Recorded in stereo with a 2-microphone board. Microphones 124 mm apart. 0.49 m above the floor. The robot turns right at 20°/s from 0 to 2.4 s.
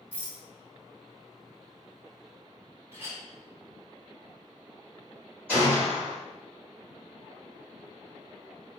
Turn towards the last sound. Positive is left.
turn(degrees=-15)  # may be behind; listen again after turning